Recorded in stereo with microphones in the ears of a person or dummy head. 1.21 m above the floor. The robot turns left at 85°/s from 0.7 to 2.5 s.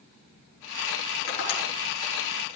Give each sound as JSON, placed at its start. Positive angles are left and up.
{"t": 1.3, "sound": "tapping", "side_deg": 75, "distance_m": 5.5}